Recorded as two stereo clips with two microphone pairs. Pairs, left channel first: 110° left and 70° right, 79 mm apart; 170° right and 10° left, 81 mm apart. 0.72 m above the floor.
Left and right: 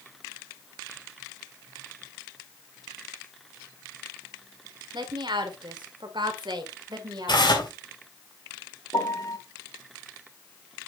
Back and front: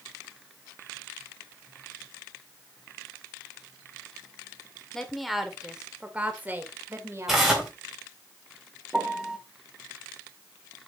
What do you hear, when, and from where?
4.9 s a woman speaking: 85° right, 2 m; by 7.7 s 35° right, 2.5 m
7.3 s tearing paper: 95° left, 4 m
8.9 s a piano: 90° left, 1.4 m